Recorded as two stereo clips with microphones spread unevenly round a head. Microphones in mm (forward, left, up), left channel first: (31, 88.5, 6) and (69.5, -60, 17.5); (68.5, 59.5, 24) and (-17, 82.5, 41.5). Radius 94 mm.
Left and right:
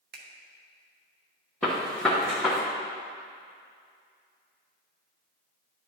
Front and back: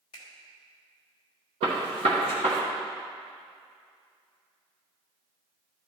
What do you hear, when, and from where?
0.1 s a finger snap: 70° right, 1.2 m
1.6 s a gunshot: 170° right, 1.0 m